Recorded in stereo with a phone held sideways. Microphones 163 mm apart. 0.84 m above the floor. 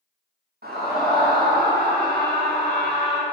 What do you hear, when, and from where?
0.6 s a scream: 75° right (ahead or behind), 6.5 m; by 3.2 s 80° right, 7.5 m